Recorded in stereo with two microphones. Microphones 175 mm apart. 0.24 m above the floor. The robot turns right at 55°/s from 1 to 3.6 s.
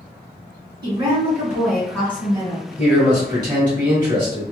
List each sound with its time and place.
0.8 s a woman speaking: 40° right, 1.8 m; by 2.7 s 50° left, 1.8 m
2.8 s a man speaking: 170° right, 1.5 m; by 4.4 s 125° right, 1.5 m